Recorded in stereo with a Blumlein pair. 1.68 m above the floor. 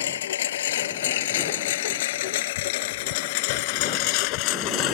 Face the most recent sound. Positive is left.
turn(degrees=40)